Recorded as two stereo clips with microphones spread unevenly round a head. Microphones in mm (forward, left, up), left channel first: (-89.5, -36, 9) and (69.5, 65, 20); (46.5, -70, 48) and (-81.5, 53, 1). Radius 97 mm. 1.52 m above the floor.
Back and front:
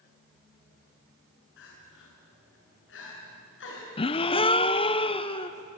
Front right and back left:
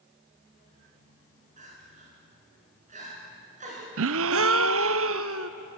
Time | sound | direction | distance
1.6 | crying | 170° right | 7 m
4.0 | a gasp | 150° left | 0.6 m